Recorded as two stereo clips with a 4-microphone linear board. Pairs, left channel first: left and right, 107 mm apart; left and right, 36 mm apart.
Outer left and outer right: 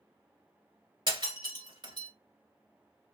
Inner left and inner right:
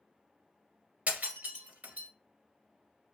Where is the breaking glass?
45° right (ahead or behind), 1.8 m.